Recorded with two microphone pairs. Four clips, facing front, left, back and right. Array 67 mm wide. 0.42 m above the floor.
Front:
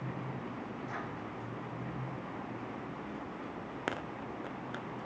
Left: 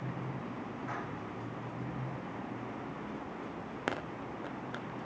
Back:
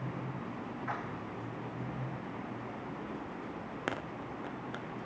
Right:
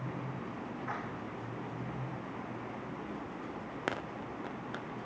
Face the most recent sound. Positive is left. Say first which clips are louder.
# right 1 dB, back 4 dB
turn(degrees=-155)